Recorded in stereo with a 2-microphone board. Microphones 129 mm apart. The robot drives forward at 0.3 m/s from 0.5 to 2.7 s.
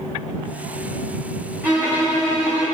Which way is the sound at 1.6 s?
15° right (ahead or behind).